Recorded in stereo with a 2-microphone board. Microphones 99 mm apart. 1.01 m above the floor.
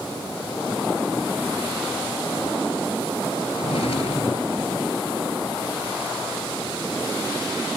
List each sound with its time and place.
3.6 s a drawer: 75° left (ahead or behind)